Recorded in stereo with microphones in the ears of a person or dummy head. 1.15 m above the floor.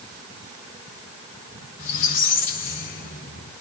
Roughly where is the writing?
I don't hear writing.